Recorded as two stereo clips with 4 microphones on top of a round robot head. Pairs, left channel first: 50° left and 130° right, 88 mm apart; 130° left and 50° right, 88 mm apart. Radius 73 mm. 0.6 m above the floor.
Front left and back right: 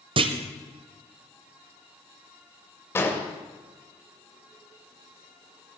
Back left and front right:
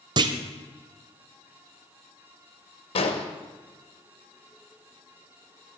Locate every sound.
0.2 s a clunk: 95° right, 0.9 m
3.0 s an explosion: 115° left, 1.7 m